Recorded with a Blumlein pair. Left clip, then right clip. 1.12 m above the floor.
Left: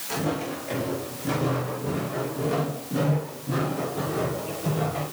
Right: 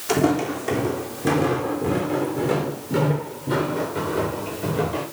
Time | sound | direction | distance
0.1 | footsteps | 50° right | 4 m